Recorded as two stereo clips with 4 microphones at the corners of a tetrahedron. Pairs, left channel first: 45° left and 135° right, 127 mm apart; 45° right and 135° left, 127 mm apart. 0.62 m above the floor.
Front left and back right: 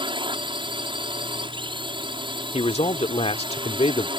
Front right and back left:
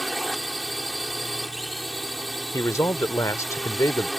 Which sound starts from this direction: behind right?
A drone, at 0.0 s.